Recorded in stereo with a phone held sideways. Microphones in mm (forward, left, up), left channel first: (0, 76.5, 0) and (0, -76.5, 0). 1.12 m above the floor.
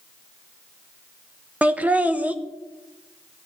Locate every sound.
1.6 s laughter: 10° right (ahead or behind), 0.7 m